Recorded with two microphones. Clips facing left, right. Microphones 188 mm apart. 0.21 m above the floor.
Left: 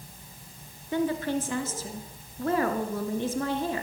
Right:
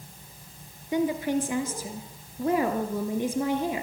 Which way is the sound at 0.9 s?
15° right (ahead or behind).